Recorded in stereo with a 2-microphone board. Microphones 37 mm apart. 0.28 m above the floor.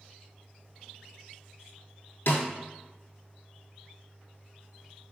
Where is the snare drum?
70° left (ahead or behind), 0.7 m.